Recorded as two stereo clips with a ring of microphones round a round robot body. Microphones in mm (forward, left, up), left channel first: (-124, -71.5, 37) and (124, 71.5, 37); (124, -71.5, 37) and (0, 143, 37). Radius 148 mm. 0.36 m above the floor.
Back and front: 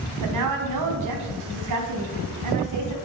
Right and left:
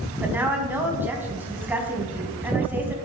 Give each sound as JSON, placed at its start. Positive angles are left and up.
{"t": 0.2, "sound": "a woman speaking", "azimuth_deg": 40, "distance_m": 3.0}